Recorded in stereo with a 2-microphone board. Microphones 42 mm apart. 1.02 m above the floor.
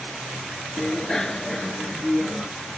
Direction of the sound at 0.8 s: 15° left (ahead or behind).